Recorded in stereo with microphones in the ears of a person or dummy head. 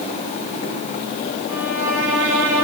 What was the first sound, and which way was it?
A violin, 10° right (ahead or behind).